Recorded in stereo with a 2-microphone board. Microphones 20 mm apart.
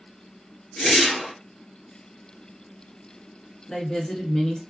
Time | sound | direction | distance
0.8 | a whoosh | 30° left (ahead or behind) | 1.5 m
3.7 | a woman speaking | 40° left (ahead or behind) | 1.3 m